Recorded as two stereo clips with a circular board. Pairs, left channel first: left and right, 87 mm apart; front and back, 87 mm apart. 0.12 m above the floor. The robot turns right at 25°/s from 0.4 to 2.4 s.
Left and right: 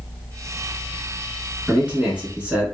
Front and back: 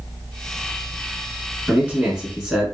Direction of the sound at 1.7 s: 135° right.